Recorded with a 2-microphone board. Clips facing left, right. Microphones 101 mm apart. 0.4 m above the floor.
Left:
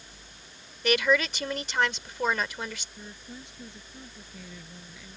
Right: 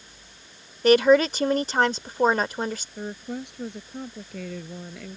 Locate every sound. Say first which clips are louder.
0.8 s a woman speaking: right 8 dB; 40° right (ahead or behind)
3.0 s a woman speaking: right 12 dB; 60° right (ahead or behind)